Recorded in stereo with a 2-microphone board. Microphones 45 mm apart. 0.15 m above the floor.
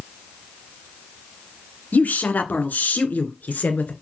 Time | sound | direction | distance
1.9 | a woman speaking | 40° left (ahead or behind) | 1.8 m